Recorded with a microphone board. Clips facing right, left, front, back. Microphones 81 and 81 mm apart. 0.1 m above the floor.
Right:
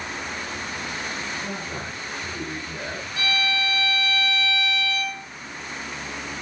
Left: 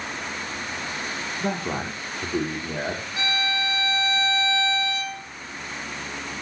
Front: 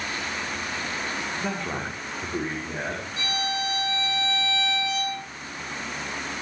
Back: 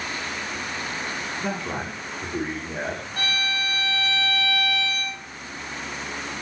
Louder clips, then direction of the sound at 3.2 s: Right 2 dB, back 1 dB; 145° left.